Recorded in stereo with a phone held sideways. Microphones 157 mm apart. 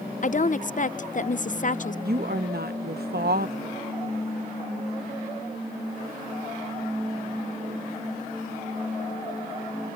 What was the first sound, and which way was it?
A woman speaking, 55° left (ahead or behind).